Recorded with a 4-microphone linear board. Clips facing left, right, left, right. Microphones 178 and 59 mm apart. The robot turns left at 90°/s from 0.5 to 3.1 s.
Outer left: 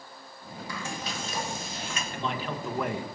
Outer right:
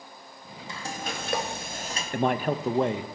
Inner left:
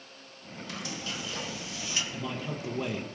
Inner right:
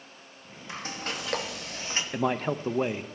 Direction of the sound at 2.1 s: 80° right.